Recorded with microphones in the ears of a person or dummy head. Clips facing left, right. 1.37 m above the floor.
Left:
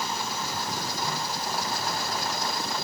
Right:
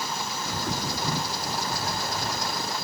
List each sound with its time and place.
0.5 s a bird: 60° right (ahead or behind), 0.6 m